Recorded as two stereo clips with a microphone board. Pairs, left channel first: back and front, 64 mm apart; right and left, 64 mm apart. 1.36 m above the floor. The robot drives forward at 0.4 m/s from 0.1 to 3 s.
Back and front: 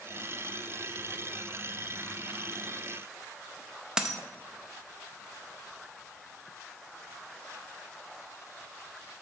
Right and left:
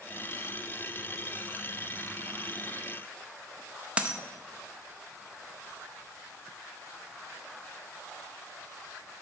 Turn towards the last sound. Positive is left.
turn(degrees=65)